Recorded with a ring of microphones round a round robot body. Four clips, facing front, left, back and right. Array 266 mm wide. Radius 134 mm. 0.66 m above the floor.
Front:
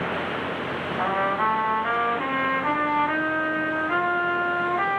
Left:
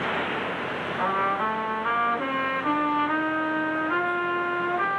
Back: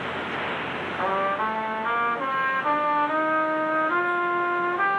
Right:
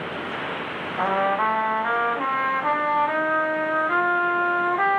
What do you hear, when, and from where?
1.0 s a trumpet: 85° right, 4.5 m